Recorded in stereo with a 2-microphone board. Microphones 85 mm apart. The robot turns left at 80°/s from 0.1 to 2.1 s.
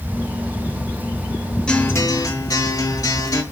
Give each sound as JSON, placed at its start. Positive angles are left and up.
{"t": 1.7, "sound": "a guitar", "azimuth_deg": 170, "distance_m": 1.0}